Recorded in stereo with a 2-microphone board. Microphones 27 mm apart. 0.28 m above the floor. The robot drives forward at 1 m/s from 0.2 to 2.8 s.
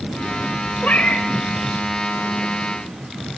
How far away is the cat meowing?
About 4 m.